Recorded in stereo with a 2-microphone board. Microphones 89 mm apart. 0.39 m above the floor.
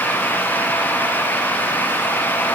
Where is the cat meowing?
No cat meowing in this recording.